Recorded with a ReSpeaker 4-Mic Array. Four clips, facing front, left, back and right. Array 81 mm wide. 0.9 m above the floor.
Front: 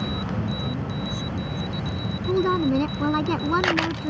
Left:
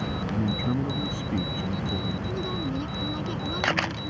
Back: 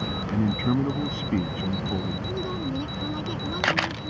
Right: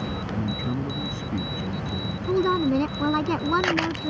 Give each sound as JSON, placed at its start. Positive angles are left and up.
{"t": 0.3, "sound": "a man speaking", "azimuth_deg": 175}
{"t": 2.3, "sound": "a woman speaking", "azimuth_deg": -50}